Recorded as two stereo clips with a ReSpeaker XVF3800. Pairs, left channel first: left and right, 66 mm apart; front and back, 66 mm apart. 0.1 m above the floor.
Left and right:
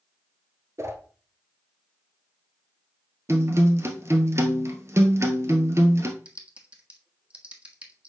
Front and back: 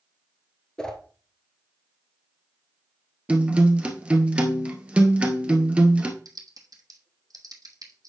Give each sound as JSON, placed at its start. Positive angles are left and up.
{"t": 0.8, "sound": "a whoosh", "azimuth_deg": -75, "distance_m": 1.1}
{"t": 3.3, "sound": "a guitar", "azimuth_deg": -115, "distance_m": 1.0}
{"t": 6.2, "sound": "typing on a keyboard", "azimuth_deg": -160, "distance_m": 1.2}